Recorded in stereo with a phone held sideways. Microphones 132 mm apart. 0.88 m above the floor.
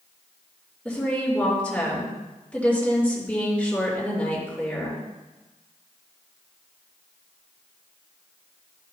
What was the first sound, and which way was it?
A woman speaking, 10° left (ahead or behind).